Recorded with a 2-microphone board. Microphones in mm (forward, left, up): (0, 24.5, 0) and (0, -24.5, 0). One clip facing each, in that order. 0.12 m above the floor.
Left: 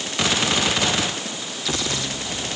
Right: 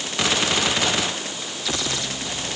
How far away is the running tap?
I don't hear a running tap.